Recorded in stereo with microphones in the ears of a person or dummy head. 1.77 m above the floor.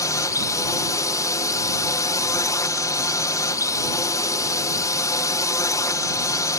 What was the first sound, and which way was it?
A drone, 15° left (ahead or behind).